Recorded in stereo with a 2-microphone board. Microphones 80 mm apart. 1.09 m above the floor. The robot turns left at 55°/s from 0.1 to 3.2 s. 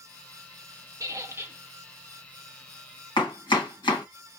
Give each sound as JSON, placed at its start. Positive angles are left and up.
{"t": 1.0, "sound": "a squeak", "azimuth_deg": -125, "distance_m": 0.7}
{"t": 3.2, "sound": "chopping", "side_deg": 80, "distance_m": 1.6}